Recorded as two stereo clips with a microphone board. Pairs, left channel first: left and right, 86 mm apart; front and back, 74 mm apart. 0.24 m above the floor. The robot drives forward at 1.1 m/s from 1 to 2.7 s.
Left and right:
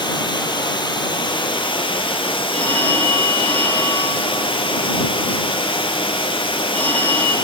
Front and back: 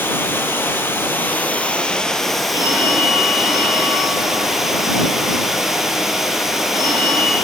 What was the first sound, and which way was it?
Running water, 60° left.